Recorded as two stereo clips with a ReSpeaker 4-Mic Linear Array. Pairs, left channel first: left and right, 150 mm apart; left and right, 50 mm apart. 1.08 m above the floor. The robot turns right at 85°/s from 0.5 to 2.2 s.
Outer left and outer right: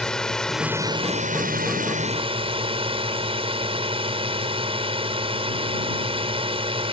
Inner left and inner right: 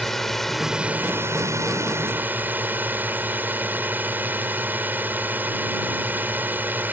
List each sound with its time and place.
0.0 s a drone: 175° left; by 6.9 s 40° right